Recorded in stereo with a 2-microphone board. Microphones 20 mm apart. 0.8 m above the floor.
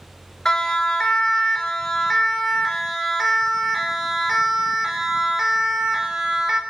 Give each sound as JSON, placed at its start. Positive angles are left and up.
{"t": 0.5, "sound": "a siren", "side_deg": 30, "distance_m": 4.0}